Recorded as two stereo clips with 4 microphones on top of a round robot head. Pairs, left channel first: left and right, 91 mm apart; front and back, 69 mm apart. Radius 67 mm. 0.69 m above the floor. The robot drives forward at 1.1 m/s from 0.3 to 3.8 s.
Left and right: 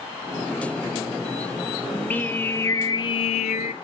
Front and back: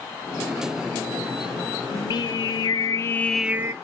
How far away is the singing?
About 1.7 m.